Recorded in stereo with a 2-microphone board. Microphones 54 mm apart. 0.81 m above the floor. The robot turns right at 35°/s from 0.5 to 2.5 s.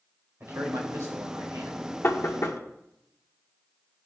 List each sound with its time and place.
0.4 s a man speaking: 120° right, 3.5 m; by 1.9 s 70° right, 3.5 m
2.0 s knocking: 50° left (ahead or behind), 1.3 m; by 2.6 s 65° left (ahead or behind), 1.3 m